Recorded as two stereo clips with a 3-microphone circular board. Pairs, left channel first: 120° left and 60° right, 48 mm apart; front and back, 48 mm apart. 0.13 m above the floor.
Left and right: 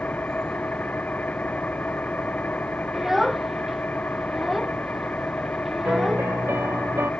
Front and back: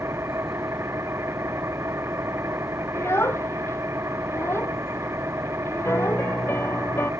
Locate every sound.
0.0 s an engine running: 170° left
2.9 s a child speaking: 25° left
5.8 s a piano: 35° right